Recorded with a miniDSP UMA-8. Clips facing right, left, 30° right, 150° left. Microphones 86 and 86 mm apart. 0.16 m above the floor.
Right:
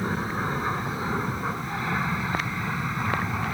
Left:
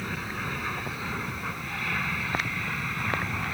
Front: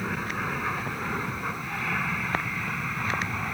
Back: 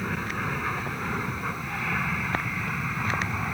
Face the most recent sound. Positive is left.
turn(degrees=-130)